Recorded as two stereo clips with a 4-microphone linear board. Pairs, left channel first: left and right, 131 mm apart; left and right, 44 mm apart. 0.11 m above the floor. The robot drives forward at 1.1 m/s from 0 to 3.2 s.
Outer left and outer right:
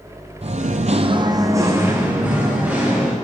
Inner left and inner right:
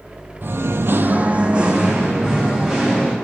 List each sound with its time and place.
0.4 s singing: 55° right (ahead or behind), 0.6 m; by 3.1 s 10° right (ahead or behind), 2.5 m